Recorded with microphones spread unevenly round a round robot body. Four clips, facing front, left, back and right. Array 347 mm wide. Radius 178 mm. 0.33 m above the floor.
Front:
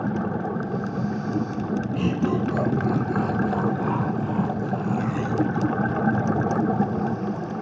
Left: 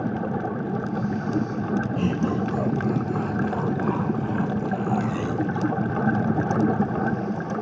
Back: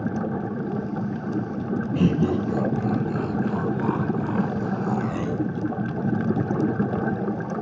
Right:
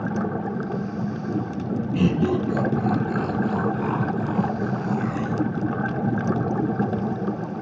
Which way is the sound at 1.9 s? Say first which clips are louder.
Right 7 dB, back 3 dB; 145° right.